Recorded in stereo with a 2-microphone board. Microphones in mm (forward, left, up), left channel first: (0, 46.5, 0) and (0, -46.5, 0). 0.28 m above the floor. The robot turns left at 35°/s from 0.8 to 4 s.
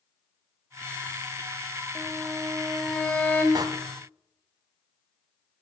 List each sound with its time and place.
1.9 s a violin: 160° right, 1.9 m; by 3.5 s 145° left, 1.9 m
3.5 s a door slam: 45° right (ahead or behind), 1.5 m